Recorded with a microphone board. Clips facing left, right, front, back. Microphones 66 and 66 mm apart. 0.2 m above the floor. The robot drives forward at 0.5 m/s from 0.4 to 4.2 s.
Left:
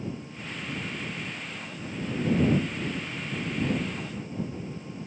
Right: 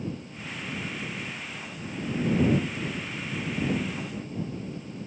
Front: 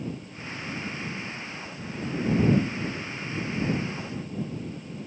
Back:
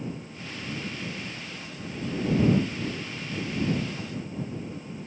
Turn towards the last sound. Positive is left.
No sound to turn to.